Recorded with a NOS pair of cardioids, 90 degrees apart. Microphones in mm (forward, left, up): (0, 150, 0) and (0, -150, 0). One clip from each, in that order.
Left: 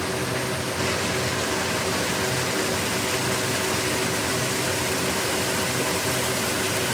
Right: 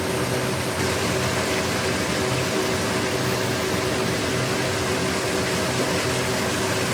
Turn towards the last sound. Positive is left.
turn(degrees=-25)